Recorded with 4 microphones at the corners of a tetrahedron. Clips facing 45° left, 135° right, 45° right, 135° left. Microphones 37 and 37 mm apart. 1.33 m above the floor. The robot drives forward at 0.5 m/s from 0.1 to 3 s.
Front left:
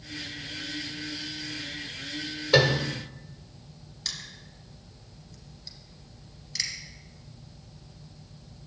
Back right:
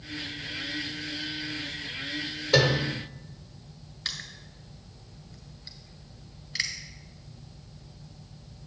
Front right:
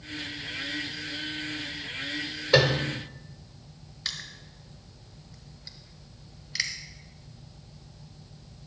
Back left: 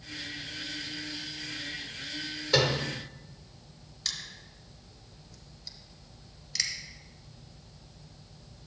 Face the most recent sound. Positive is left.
turn(degrees=-105)